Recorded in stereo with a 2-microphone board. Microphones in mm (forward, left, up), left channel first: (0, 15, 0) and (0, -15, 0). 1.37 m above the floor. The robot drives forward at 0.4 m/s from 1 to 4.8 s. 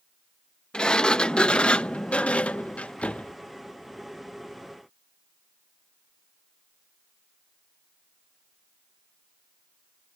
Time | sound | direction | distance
0.7 | a sliding door | 30° left (ahead or behind) | ?